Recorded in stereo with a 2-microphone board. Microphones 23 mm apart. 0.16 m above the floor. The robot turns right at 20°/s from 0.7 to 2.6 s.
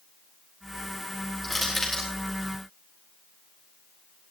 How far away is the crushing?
About 5 m.